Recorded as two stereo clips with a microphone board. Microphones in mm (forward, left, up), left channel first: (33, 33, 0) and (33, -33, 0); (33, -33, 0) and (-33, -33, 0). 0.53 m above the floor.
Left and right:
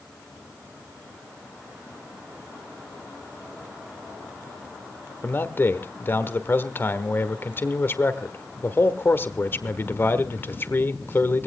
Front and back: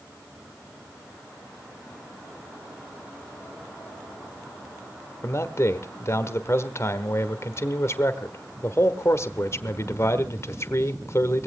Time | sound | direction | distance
5.2 | a man speaking | 40° left | 1.3 m